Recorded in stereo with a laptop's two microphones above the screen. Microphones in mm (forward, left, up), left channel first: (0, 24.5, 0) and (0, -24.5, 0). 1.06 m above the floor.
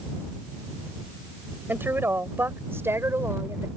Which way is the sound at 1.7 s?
45° right (ahead or behind).